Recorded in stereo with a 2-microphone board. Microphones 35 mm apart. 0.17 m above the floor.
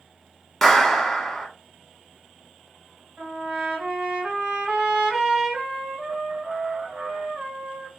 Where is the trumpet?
40° right (ahead or behind), 2.5 m.